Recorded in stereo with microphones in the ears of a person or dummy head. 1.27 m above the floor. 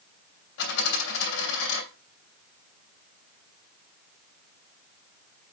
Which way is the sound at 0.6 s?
70° left (ahead or behind).